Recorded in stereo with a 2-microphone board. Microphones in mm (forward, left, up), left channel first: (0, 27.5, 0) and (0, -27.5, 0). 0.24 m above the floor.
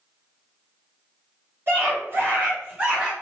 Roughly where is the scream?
Right.